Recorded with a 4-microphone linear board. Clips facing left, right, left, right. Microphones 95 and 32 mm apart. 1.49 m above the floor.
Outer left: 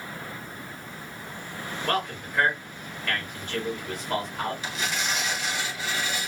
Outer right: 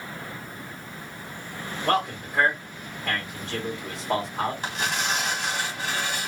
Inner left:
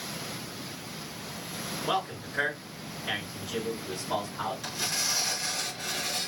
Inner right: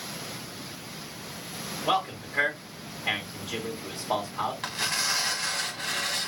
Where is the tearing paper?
65° right (ahead or behind), 1.9 m.